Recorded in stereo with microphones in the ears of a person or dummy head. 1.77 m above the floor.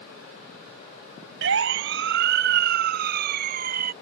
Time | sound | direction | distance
1.4 | a siren | 70° right (ahead or behind) | ?